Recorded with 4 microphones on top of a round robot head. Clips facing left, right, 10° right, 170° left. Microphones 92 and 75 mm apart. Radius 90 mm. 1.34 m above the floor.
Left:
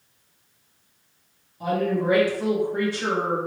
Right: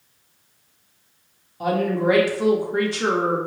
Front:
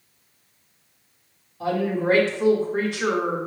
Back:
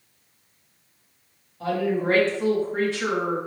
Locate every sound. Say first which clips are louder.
1.6 s a woman speaking: right 3 dB, even; 85° right, 1.0 m